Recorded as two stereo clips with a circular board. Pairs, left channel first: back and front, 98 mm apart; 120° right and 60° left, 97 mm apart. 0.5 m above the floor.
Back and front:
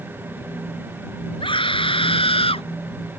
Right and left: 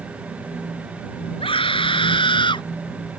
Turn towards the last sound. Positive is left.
turn(degrees=-155)